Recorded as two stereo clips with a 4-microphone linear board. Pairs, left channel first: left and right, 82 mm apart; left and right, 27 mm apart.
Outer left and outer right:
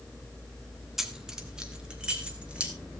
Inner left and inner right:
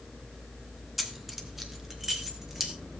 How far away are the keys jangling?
About 1.5 m.